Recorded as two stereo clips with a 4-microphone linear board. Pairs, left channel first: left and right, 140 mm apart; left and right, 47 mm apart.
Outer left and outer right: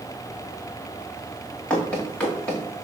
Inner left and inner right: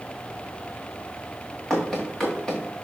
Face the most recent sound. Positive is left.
turn(degrees=10)  # may be behind; listen again after turning